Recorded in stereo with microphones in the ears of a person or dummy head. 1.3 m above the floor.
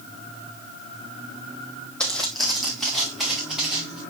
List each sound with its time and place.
2.0 s footsteps: 10° left (ahead or behind), 2 m; by 4.0 s centre (ahead or behind), 5 m